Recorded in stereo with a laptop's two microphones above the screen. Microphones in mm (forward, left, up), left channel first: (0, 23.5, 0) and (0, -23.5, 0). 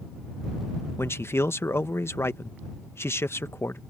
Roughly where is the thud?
No thud in this recording.